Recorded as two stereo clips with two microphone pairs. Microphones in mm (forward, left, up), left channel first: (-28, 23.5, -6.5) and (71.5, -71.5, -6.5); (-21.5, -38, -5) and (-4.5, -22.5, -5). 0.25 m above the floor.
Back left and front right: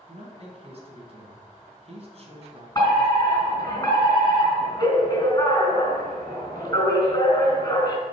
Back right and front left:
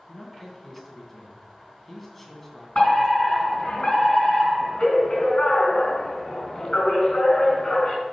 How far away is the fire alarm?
About 3.5 m.